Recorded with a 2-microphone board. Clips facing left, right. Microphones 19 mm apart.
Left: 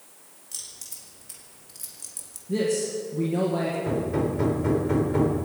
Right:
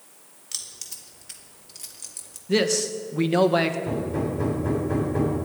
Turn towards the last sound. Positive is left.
turn(degrees=35)  # may be behind; listen again after turning